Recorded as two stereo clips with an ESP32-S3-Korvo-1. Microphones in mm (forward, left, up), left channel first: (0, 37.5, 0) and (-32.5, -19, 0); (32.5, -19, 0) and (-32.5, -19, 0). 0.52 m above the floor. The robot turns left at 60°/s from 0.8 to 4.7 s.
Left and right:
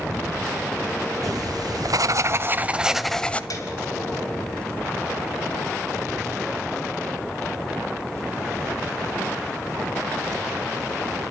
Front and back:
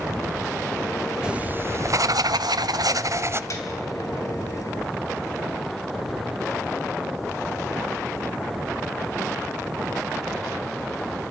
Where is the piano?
35° left, 3 m; by 3.7 s 25° left, 3 m.